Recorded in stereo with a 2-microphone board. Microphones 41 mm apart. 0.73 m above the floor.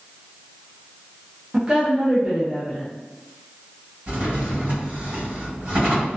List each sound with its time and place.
1.5 s a woman speaking: 20° right (ahead or behind), 0.6 m
4.1 s a drawer: 45° right (ahead or behind), 1.6 m